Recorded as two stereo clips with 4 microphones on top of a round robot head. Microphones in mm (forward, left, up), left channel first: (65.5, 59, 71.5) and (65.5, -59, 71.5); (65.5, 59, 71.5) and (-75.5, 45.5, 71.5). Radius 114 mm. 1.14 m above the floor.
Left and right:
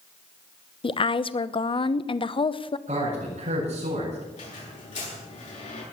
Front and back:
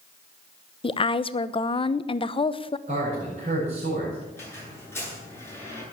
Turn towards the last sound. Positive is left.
turn(degrees=80)